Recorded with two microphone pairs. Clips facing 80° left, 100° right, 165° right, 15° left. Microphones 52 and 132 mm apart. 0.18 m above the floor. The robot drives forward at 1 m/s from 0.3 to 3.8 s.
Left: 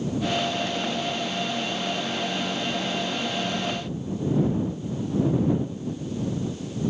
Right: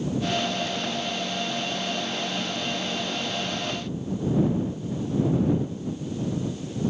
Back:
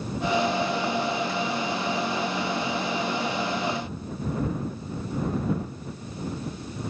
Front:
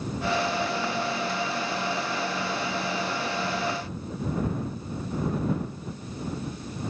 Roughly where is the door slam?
I don't hear a door slam.